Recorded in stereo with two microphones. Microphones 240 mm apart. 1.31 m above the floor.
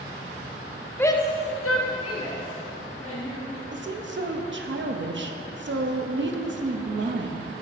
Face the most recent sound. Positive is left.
turn(degrees=-55)  # may be behind; listen again after turning